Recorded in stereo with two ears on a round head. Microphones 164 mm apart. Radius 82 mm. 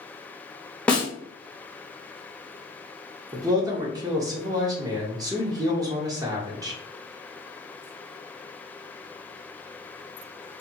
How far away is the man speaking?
About 0.7 m.